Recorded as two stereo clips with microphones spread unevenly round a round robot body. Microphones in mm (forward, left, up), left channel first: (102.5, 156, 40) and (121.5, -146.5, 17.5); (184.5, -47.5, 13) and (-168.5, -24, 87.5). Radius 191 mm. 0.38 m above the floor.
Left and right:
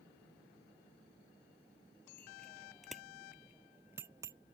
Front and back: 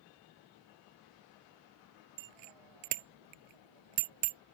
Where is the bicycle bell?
Straight behind; by 4.4 s 170° right.